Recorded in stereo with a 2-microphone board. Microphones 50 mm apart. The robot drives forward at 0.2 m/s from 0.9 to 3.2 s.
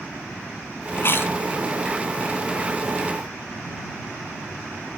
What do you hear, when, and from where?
1.0 s chewing: 45° left (ahead or behind), 0.7 m